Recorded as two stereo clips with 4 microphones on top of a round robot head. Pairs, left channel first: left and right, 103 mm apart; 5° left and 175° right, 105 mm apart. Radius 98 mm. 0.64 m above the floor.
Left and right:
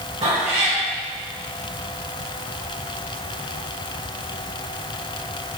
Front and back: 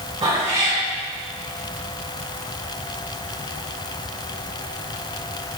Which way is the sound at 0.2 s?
130° right.